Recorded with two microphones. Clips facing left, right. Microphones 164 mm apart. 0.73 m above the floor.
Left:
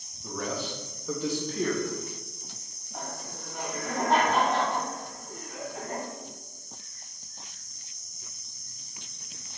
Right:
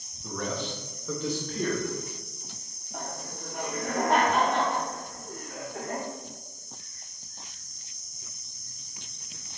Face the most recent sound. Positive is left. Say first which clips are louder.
# right 1 dB
turn(degrees=-50)  # may be behind; listen again after turning